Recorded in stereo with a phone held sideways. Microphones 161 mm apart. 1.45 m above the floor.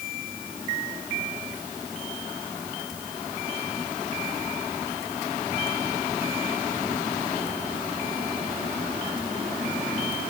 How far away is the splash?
No splash in this recording.